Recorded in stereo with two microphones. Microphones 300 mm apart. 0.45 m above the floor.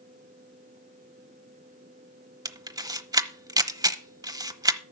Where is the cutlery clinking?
No cutlery clinking in this recording.